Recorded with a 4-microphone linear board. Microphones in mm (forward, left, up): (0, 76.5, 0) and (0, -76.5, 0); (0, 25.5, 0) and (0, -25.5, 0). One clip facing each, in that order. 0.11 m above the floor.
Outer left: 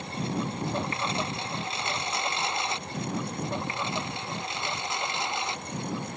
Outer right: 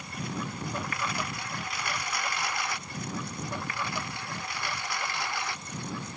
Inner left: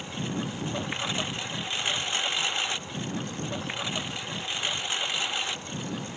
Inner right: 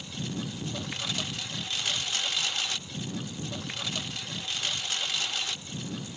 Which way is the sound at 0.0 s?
25° left (ahead or behind).